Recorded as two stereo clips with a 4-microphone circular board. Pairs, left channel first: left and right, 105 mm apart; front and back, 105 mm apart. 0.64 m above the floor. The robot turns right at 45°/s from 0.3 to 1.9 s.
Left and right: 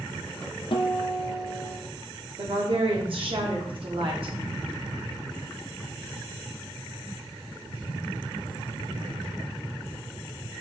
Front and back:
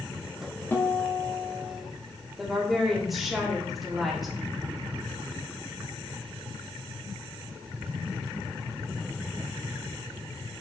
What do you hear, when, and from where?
0.7 s a guitar: 65° left, 0.6 m; by 1.8 s 115° left, 0.6 m
2.4 s a woman speaking: 90° right, 1.2 m